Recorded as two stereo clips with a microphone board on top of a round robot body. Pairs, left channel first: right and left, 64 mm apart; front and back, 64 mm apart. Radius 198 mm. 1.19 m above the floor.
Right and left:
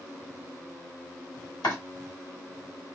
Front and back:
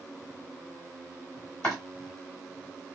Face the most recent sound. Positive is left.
turn(degrees=-70)